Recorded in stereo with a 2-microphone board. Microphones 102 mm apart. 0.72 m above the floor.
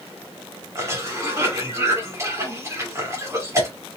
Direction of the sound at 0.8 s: 30° right (ahead or behind).